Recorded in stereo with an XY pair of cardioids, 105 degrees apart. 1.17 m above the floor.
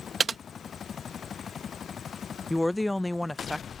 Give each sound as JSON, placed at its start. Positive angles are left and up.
{"t": 0.2, "sound": "typing on a keyboard", "azimuth_deg": -30}
{"t": 2.5, "sound": "a woman speaking", "azimuth_deg": 15}